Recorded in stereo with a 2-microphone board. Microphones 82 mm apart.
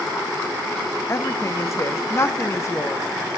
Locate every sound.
1.1 s a woman speaking: 35° left (ahead or behind), 0.8 m